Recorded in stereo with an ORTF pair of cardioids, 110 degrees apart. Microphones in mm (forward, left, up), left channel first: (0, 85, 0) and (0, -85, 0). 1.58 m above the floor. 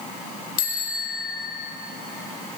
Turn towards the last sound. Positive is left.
turn(degrees=60)